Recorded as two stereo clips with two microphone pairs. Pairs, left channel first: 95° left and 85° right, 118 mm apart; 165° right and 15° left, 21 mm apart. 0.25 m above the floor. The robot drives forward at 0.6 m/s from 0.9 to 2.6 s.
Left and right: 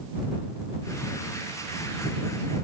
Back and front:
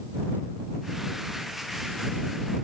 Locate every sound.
Only background noise.